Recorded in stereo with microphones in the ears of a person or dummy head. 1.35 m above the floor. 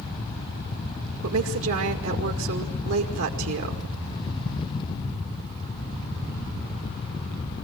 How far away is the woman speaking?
About 2.0 m.